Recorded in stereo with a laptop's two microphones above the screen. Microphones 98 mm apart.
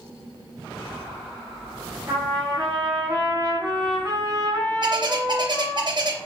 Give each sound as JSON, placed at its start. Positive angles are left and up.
{"t": 2.1, "sound": "a trumpet", "side_deg": -40, "distance_m": 2.5}
{"t": 4.8, "sound": "a bird", "side_deg": -45, "distance_m": 0.8}